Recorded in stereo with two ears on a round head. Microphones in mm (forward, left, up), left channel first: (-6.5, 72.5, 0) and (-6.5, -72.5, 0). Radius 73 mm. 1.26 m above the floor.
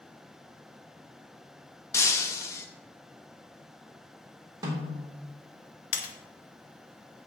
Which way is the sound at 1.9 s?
15° left (ahead or behind).